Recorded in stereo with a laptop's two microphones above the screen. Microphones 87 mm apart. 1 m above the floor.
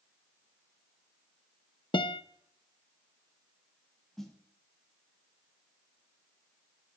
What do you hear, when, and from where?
1.9 s a guitar: 70° left (ahead or behind), 0.6 m
4.2 s a snare drum: 5° left (ahead or behind), 2 m